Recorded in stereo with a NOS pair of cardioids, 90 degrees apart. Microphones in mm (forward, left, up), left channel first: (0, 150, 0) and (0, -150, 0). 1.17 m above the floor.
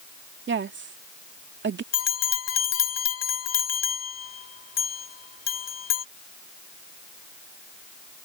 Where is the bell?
55° left.